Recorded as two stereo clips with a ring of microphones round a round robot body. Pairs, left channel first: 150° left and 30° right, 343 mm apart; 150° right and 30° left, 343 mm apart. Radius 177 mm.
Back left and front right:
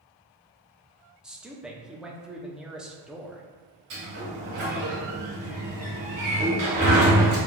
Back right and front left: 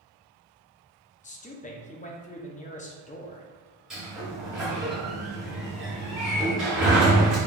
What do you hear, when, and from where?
1.2 s a man speaking: 115° right, 0.6 m
3.9 s a sliding door: 60° right, 1.9 m